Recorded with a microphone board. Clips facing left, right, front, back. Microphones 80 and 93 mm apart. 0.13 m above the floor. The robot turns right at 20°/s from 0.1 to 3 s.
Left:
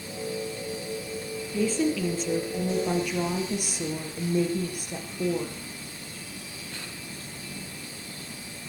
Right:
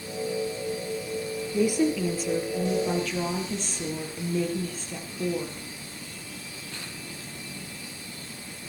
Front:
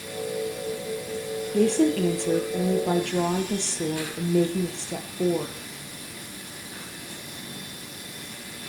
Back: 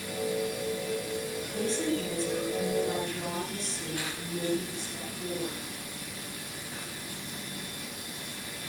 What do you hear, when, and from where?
1.5 s a woman speaking: 20° right, 4 m; by 5.7 s 10° left, 4 m